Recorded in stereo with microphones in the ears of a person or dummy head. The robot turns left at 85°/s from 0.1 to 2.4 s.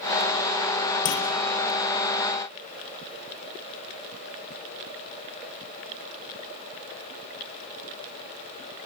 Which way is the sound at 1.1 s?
70° left (ahead or behind).